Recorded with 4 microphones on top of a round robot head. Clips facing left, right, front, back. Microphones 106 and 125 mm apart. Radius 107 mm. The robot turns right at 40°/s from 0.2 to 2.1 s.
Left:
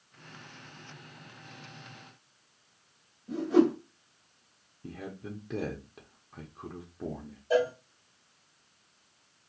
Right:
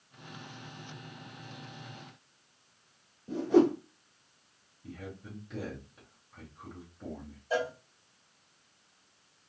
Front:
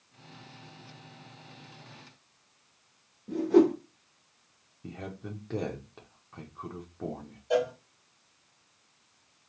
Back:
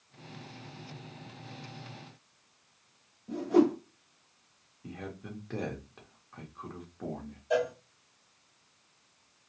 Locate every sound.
3.3 s a whoosh: 35° right, 1.0 m
4.8 s a man speaking: 65° left, 0.8 m
7.5 s a cowbell: 50° left, 1.2 m